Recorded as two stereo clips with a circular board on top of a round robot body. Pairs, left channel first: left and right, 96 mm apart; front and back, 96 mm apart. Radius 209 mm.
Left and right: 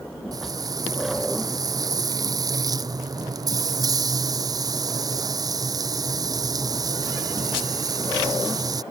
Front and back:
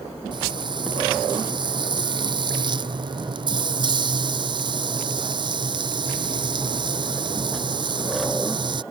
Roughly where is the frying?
Behind right.